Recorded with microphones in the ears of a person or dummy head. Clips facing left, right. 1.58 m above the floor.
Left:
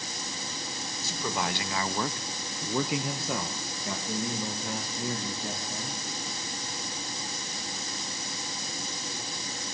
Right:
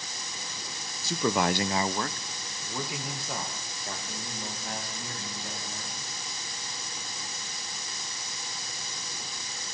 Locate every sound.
1.0 s a man speaking: 65° right (ahead or behind), 1.1 m; by 6.0 s 80° left, 4.5 m